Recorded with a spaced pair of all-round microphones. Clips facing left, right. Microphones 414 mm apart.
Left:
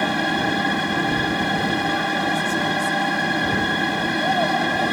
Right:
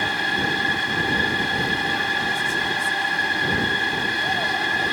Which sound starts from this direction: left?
A machine running, at 0.0 s.